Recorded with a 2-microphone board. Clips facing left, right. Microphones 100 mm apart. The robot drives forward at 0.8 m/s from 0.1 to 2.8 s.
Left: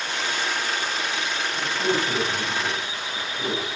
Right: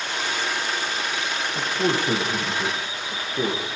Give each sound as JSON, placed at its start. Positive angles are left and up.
{"t": 1.6, "sound": "a man speaking", "side_deg": -65, "distance_m": 3.5}